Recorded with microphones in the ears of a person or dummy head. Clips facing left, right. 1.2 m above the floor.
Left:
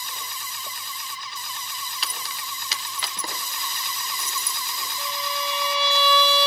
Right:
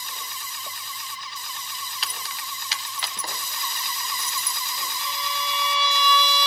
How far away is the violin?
About 3 m.